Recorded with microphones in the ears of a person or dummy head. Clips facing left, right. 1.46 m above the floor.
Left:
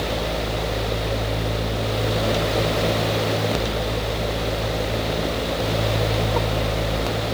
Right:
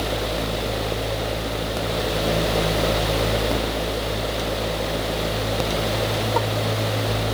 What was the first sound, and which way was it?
Only background noise.